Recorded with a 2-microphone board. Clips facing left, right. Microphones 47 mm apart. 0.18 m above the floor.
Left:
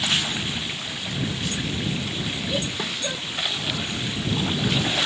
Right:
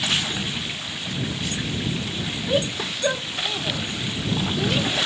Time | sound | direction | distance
2.5 | a shout | 30° right (ahead or behind) | ?